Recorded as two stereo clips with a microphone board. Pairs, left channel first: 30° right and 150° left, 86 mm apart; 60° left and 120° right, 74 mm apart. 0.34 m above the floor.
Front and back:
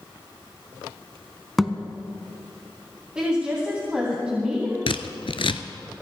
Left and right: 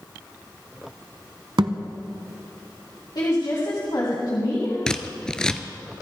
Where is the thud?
120° right, 1.0 m.